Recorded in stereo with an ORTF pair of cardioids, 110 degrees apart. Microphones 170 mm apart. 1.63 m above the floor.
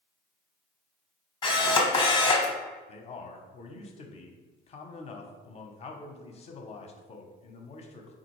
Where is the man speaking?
40° left, 0.6 m.